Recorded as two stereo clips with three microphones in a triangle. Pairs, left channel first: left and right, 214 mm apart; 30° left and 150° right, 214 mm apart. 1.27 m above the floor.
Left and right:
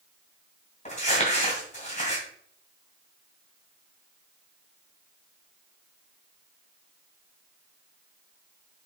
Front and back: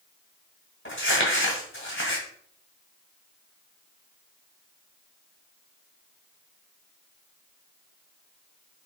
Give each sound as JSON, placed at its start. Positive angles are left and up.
{"t": 0.8, "sound": "crumpling", "azimuth_deg": 35, "distance_m": 2.0}